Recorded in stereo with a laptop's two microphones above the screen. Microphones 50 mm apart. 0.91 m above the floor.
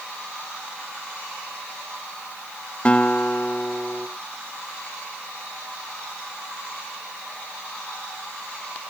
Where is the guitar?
25° left (ahead or behind), 0.6 m.